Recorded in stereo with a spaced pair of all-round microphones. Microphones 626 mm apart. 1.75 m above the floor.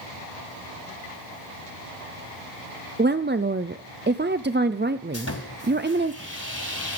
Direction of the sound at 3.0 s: 20° right (ahead or behind).